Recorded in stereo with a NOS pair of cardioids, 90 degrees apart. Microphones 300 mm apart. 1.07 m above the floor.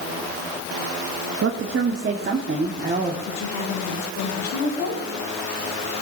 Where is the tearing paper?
No tearing paper in this recording.